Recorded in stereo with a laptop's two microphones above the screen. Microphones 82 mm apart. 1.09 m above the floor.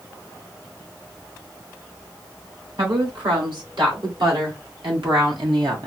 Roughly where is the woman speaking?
Right.